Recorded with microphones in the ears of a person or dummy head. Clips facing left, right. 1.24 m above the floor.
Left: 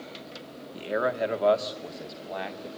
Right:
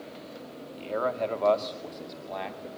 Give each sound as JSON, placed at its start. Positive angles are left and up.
{"t": 0.7, "sound": "a man speaking", "side_deg": 20, "distance_m": 2.0}